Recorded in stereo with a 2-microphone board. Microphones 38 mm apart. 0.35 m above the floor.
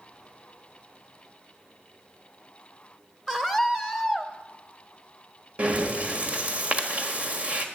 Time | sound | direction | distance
3.3 | a scream | 15° right (ahead or behind) | 1.1 m
5.6 | breathing | 40° right (ahead or behind) | 1.4 m